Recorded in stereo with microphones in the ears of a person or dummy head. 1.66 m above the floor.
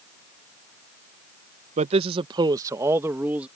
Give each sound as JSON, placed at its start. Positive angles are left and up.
{"t": 1.8, "sound": "a man speaking", "side_deg": -40}